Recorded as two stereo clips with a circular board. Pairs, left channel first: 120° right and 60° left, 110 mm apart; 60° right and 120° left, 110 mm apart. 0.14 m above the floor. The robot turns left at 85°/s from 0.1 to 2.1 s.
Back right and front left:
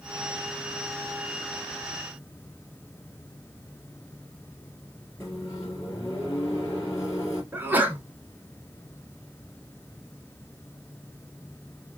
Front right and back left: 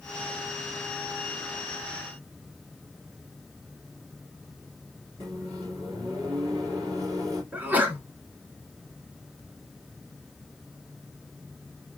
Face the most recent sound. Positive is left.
turn(degrees=85)